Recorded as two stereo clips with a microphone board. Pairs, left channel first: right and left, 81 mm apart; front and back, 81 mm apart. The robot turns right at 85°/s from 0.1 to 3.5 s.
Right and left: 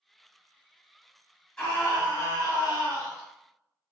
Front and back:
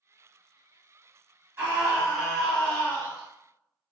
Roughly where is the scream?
Behind right.